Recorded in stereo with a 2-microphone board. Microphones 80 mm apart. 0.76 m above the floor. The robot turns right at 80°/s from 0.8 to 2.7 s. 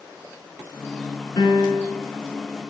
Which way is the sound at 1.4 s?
65° left.